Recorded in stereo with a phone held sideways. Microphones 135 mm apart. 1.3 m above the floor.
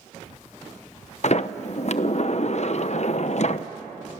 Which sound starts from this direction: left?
A sliding door, at 1.2 s.